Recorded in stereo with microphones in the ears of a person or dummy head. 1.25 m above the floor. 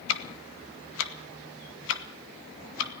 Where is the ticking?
70° left (ahead or behind), 2.0 m.